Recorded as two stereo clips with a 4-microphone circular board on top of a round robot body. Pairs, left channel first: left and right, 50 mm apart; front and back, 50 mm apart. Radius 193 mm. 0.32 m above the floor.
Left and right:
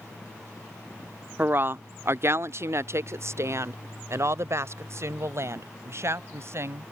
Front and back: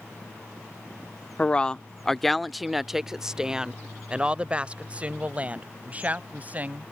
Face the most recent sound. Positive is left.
turn(degrees=-120)